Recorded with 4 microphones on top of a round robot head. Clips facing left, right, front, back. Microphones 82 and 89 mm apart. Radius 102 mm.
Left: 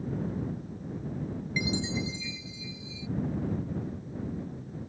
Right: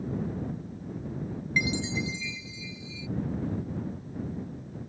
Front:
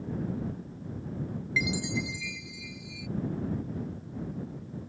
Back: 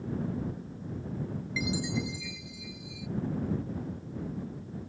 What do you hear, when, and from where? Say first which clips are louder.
1.6 s a chime: right 2 dB, front 1 dB; 45° right